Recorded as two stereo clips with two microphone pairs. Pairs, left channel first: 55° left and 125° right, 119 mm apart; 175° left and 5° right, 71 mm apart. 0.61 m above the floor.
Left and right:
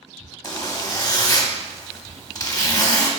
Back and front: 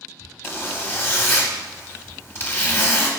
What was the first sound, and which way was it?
A zipper, 115° left.